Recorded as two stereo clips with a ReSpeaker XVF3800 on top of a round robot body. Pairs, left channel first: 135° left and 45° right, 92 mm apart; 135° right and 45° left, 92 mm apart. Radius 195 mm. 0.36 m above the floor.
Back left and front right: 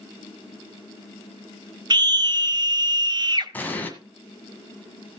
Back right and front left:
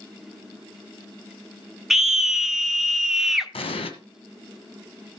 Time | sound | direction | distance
1.9 | a scream | 40° right | 1.5 m
3.5 | an explosion | 150° right | 1.7 m